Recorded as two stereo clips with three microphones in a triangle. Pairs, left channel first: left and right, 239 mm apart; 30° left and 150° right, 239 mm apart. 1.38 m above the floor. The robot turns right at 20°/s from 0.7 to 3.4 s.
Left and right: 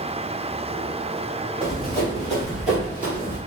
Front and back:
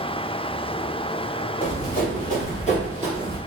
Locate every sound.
1.6 s running footsteps: 5° right, 2.0 m; by 3.4 s 20° right, 1.5 m